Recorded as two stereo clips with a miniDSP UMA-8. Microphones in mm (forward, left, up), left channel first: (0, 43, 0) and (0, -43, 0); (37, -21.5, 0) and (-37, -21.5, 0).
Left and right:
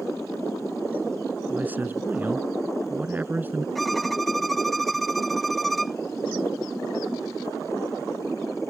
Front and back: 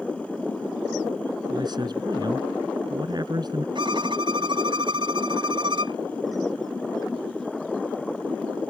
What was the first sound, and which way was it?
A man speaking, 160° right.